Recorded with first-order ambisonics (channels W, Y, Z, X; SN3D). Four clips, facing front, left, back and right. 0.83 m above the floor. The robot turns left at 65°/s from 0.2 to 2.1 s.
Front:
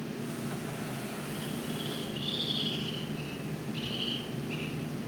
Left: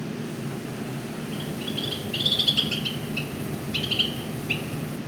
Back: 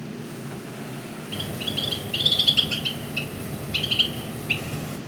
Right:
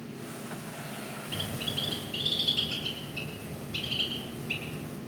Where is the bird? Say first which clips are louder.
Left 1 dB, back 11 dB; 155° right, 4 m; by 5.0 s 155° left, 4 m.